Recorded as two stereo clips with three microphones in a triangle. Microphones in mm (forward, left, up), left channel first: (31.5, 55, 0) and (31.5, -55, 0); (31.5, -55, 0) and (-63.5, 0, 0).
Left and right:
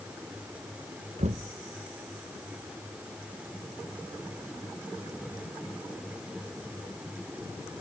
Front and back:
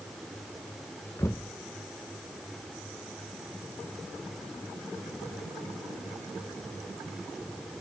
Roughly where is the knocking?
Right.